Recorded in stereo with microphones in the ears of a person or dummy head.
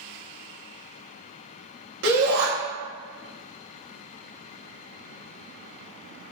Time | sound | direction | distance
2.0 | a shout | 70° right (ahead or behind) | 1.6 m